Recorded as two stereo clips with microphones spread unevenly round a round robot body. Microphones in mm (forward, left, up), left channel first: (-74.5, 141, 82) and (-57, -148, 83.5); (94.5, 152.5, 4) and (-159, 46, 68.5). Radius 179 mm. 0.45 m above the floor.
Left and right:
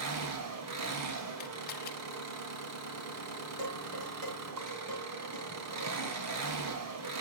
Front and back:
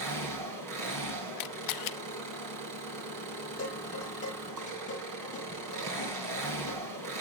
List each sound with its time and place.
0.0 s an engine running: 120° right, 3 m
1.4 s a camera shutter: 30° left, 0.7 m
3.6 s dishes clattering: 45° right, 6.5 m